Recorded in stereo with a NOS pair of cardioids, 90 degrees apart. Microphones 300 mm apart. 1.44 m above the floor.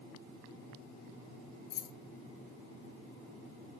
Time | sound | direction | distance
1.7 | keys jangling | 65° left | 1.1 m